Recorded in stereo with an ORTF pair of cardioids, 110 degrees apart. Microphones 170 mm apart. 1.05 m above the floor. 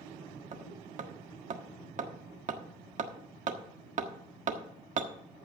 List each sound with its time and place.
0.5 s hammering: 45° right, 1.4 m